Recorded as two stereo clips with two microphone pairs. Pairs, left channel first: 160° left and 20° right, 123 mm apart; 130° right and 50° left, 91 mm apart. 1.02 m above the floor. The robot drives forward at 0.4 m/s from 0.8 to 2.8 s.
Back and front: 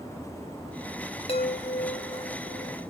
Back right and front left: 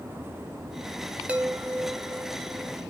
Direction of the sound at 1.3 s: 125° left.